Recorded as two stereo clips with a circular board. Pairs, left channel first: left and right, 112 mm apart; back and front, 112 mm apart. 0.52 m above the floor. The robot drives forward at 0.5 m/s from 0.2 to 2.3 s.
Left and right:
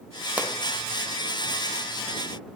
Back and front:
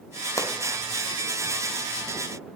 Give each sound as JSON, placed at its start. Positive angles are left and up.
{"t": 0.4, "sound": "a pop", "azimuth_deg": -155, "distance_m": 0.6}